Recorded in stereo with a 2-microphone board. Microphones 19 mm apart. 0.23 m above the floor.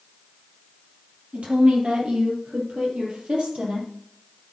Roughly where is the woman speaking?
Right.